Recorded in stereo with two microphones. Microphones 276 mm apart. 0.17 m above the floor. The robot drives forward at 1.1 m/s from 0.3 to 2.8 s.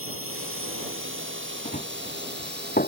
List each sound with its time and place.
0.0 s a drone: 50° right (ahead or behind); by 2.9 s 35° right (ahead or behind)
1.6 s running footsteps: 25° left (ahead or behind); by 2.9 s 30° left (ahead or behind)